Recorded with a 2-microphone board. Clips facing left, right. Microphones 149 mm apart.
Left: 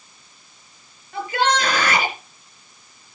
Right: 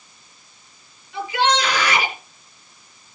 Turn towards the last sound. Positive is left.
turn(degrees=50)  # may be behind; listen again after turning